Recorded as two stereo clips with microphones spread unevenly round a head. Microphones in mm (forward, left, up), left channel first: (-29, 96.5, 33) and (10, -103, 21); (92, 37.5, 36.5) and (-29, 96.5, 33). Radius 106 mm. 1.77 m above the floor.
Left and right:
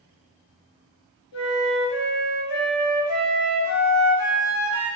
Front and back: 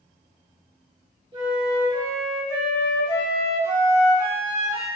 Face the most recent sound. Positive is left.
turn(degrees=105)